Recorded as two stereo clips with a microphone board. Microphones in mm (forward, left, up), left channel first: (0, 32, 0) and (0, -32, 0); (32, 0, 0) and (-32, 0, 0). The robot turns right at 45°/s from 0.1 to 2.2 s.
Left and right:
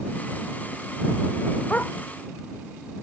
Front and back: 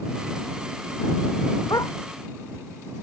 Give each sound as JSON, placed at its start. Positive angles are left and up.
{"t": 1.7, "sound": "a dog barking", "azimuth_deg": 20}